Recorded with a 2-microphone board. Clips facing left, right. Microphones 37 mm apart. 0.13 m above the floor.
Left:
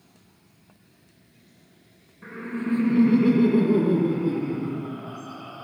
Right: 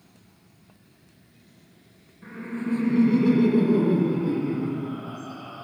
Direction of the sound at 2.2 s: 30° left (ahead or behind).